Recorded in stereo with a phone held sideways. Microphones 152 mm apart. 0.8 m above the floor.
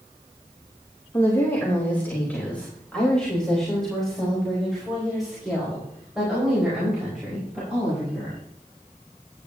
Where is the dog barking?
No dog barking in this recording.